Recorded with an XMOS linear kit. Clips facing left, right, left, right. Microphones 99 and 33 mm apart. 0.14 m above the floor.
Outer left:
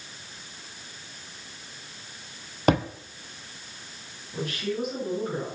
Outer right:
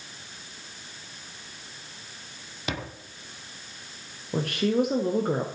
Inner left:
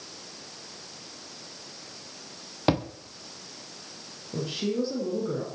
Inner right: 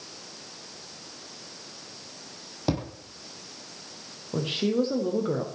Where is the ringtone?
No ringtone in this recording.